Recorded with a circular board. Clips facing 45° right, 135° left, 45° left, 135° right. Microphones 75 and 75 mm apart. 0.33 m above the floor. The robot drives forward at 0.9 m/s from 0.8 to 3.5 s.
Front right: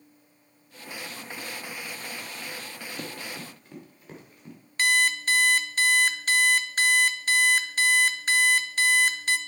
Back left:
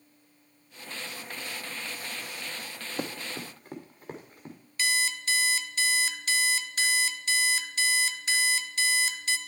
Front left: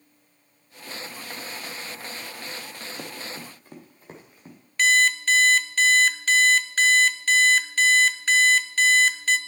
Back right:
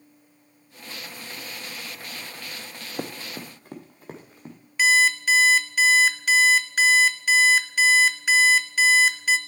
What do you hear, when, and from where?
3.0 s running footsteps: 165° right, 0.9 m; by 4.5 s 170° right, 2.5 m
4.8 s an alarm clock: 55° right, 0.5 m